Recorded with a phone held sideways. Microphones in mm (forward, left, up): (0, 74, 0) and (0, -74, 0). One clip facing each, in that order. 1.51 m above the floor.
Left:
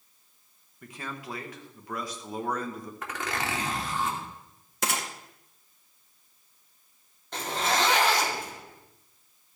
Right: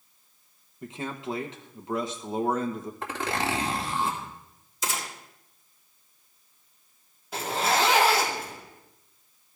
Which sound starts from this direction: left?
A gunshot, at 4.8 s.